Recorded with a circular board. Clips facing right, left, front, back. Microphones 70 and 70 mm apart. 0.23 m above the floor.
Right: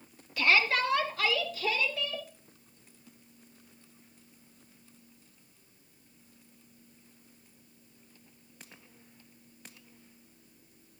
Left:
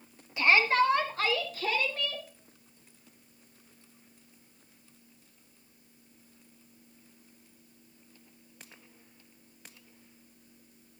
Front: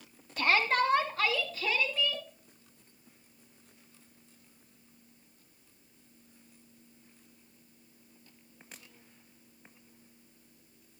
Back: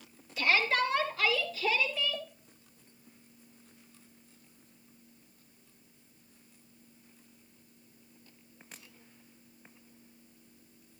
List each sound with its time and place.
0.4 s a shout: 25° left, 2 m; by 2.2 s 45° left, 4 m